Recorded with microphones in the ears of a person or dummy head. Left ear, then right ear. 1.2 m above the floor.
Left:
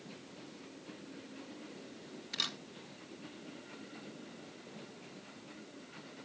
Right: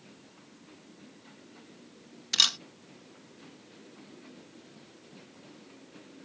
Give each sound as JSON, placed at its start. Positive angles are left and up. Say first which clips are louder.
{"t": 2.3, "sound": "a camera shutter", "louder": "right 13 dB", "side_deg": -55}